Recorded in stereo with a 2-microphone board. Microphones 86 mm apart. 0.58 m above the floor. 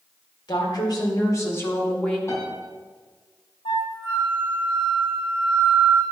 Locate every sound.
0.5 s a woman speaking: 60° left (ahead or behind), 2 m; by 2.2 s 10° left (ahead or behind), 1.5 m
2.3 s a piano: 35° left (ahead or behind), 3.5 m
3.6 s a flute: 75° left (ahead or behind), 2.0 m